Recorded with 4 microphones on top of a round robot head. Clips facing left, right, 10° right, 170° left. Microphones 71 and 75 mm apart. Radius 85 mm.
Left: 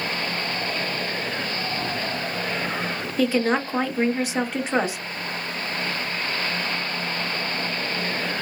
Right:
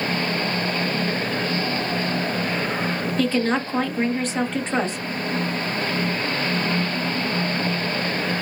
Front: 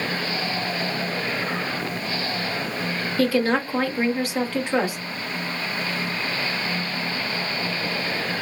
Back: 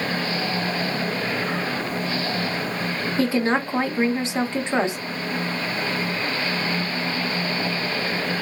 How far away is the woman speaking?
About 0.8 m.